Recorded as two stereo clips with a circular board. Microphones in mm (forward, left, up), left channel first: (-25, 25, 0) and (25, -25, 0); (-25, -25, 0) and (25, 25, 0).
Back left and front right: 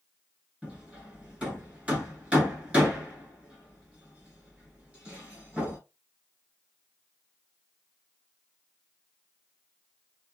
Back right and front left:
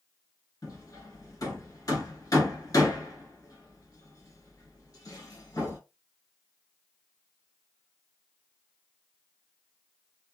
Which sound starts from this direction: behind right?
Hammering, at 0.6 s.